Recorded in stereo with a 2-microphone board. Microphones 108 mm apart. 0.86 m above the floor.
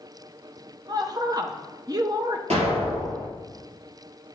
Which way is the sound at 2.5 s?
75° right (ahead or behind).